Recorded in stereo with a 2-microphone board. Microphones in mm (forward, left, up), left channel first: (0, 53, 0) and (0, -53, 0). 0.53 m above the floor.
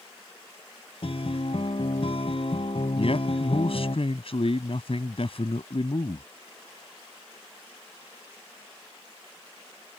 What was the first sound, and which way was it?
A guitar, 60° left (ahead or behind).